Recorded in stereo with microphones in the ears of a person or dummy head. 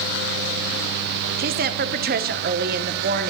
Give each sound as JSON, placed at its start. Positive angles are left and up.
{"t": 1.4, "sound": "a woman speaking", "side_deg": -40, "distance_m": 0.6}